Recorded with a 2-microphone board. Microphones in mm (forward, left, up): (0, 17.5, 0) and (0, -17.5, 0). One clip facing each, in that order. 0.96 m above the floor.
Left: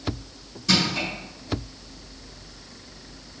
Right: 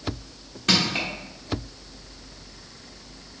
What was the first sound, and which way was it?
Crushing, 55° right (ahead or behind).